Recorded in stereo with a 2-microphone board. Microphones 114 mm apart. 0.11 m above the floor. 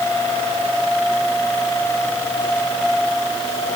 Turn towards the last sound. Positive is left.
No sound to turn to.